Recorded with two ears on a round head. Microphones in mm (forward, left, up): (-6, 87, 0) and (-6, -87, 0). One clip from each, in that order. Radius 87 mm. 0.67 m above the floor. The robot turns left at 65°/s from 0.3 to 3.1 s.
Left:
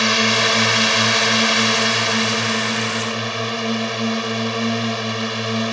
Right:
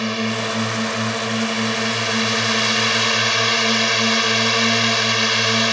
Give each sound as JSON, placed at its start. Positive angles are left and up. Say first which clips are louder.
{"t": 0.0, "sound": "a drone", "louder": "left 7 dB", "azimuth_deg": 125}